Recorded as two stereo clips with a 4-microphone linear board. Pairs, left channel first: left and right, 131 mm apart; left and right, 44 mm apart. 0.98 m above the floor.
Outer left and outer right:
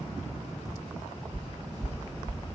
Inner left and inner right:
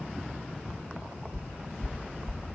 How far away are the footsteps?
About 1.3 m.